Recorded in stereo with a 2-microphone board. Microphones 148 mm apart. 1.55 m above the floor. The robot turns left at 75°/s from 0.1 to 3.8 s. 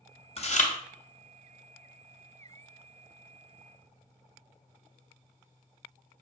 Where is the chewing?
40° left (ahead or behind), 0.5 m; by 0.7 s 60° left (ahead or behind), 0.5 m.